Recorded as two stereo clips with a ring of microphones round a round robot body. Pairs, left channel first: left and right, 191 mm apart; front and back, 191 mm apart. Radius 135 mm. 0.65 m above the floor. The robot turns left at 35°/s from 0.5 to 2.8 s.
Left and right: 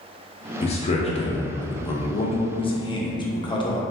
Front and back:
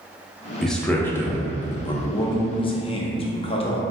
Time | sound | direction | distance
0.6 | a man speaking | 85° left | 0.6 m
2.0 | a man speaking | 65° left | 0.6 m